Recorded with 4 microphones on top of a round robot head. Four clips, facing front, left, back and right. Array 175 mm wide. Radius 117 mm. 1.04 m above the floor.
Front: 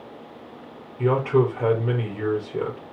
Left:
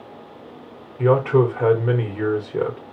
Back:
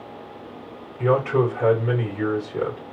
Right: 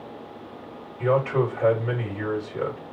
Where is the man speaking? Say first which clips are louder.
Left 5 dB, even; 75° left, 4.5 m.